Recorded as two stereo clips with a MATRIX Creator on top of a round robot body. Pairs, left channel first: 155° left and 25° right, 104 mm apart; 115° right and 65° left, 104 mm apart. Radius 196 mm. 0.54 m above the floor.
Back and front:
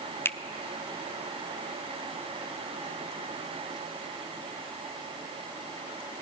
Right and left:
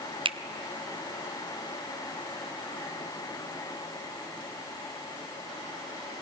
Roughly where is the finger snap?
Left.